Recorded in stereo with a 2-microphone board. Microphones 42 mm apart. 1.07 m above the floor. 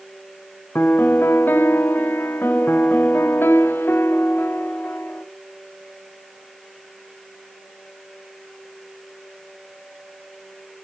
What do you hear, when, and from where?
0.8 s a piano: 60° left (ahead or behind), 1.1 m